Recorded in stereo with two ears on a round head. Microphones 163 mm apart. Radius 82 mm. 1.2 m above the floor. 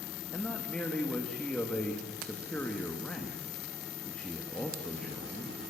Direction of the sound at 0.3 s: 5° left (ahead or behind).